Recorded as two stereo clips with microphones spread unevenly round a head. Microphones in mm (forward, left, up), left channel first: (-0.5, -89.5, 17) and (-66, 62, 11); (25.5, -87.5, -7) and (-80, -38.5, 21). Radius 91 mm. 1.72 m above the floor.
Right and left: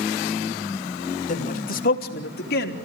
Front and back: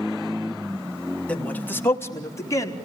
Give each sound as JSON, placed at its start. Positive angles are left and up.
{"t": 1.3, "sound": "a man speaking", "azimuth_deg": -105, "distance_m": 3.0}